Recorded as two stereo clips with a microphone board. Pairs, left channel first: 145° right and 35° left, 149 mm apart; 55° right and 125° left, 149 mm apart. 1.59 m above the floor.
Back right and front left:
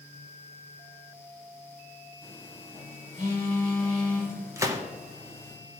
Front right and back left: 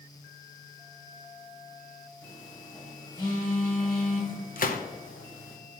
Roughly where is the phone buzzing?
Ahead.